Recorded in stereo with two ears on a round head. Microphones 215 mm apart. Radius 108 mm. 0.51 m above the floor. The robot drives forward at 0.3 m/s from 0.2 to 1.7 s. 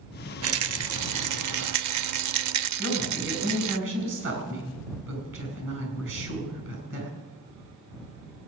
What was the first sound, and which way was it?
A rattle, 60° right (ahead or behind).